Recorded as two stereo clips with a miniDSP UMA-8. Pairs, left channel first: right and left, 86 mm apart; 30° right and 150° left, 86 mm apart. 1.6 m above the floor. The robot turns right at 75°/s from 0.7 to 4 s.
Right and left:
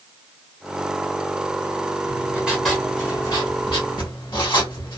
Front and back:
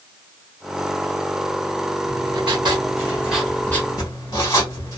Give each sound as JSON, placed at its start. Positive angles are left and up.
{"t": 2.0, "sound": "writing", "azimuth_deg": 135, "distance_m": 1.5}